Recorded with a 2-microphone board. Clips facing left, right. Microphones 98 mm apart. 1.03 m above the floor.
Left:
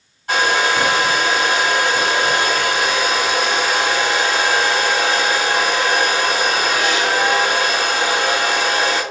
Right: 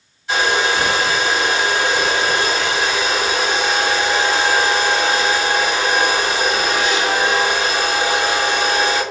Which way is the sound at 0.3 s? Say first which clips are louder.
Left 1 dB; 50° left (ahead or behind).